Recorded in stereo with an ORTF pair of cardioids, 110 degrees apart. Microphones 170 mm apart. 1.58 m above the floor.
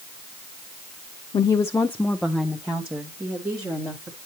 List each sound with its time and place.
1.3 s a woman speaking: 30° left, 0.5 m; by 4.2 s 15° right, 1.7 m